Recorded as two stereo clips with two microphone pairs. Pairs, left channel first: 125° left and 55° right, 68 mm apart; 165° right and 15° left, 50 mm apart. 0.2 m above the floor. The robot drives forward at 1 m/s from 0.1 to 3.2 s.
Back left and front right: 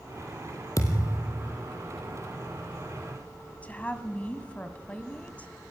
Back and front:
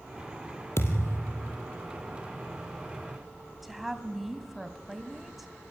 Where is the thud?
165° left, 2.5 m; by 1.5 s 170° left, 3 m.